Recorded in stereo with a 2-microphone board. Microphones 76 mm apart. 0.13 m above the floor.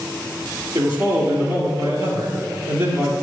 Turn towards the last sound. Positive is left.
turn(degrees=-60)  # may be behind; listen again after turning